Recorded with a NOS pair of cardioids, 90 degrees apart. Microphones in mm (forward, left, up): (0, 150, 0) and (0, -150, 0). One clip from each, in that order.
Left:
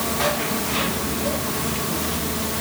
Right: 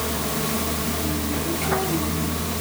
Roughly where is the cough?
I don't hear a cough.